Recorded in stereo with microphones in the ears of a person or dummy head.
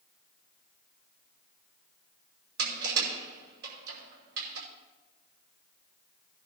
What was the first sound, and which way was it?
Crushing, 65° right (ahead or behind).